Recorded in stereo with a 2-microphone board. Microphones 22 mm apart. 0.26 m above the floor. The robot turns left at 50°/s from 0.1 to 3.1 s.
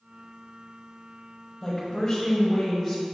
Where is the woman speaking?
25° left (ahead or behind), 0.9 m; by 3.0 s centre (ahead or behind), 0.9 m.